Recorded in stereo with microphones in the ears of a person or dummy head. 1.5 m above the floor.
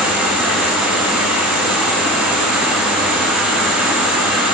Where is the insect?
Centre (ahead or behind), 0.8 m.